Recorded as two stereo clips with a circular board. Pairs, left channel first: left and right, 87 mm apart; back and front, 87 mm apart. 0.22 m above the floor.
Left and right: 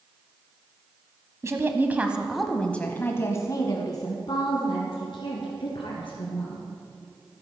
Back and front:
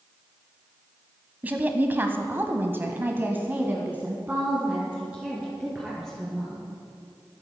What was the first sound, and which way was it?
A woman speaking, 60° right.